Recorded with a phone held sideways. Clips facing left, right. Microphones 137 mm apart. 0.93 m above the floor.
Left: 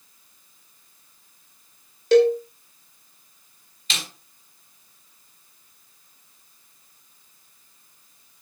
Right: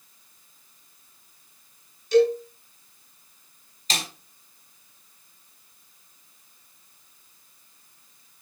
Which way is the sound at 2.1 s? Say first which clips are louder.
Left 3 dB; 90° left.